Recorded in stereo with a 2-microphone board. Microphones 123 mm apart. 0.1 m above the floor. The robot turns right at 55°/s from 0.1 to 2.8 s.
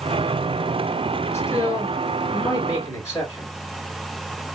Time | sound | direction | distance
1.3 | a man speaking | 50° left | 1.9 m